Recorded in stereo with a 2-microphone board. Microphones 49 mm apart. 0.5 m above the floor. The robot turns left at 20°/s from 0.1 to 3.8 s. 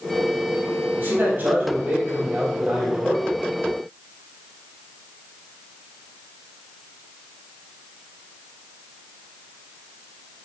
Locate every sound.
1.0 s a man speaking: 130° right, 3.5 m; by 3.3 s 175° right, 3.5 m